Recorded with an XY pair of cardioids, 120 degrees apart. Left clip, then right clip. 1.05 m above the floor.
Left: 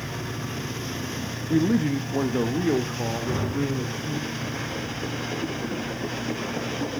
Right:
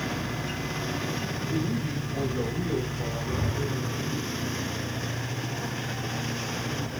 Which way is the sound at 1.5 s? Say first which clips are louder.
Left 12 dB; 65° left.